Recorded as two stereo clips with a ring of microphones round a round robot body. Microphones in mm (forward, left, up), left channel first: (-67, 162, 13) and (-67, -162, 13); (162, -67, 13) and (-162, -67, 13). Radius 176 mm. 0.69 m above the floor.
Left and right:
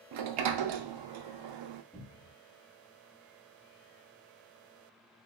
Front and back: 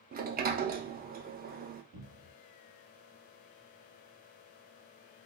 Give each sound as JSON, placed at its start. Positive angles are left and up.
{"t": 0.1, "sound": "a sliding door", "azimuth_deg": -115, "distance_m": 0.5}
{"t": 1.9, "sound": "a cupboard door", "azimuth_deg": 175, "distance_m": 1.4}